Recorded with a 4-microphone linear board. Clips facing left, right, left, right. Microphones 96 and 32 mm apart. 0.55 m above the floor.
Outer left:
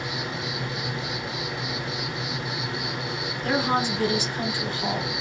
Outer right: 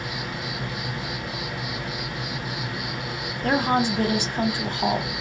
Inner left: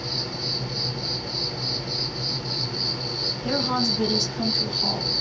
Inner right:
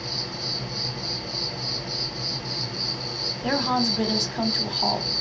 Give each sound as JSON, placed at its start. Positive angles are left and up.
{"t": 0.0, "sound": "an insect", "side_deg": 25, "distance_m": 0.9}
{"t": 3.4, "sound": "a woman speaking", "side_deg": -55, "distance_m": 1.2}